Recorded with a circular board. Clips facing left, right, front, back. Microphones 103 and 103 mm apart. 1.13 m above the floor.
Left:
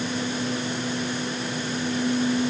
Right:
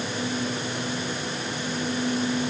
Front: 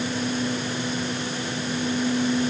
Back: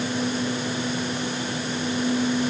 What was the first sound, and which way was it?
Only background noise.